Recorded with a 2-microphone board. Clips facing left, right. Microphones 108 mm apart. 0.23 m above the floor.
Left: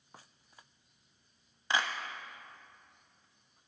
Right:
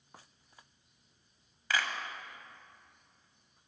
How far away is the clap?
About 1.1 m.